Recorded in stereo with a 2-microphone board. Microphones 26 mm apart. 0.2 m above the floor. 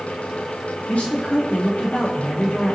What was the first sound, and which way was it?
A man speaking, 70° left (ahead or behind).